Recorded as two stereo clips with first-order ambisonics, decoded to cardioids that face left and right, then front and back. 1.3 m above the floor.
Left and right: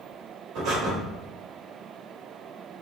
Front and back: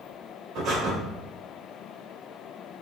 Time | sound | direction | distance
0.6 | breathing | 130° right | 2.5 m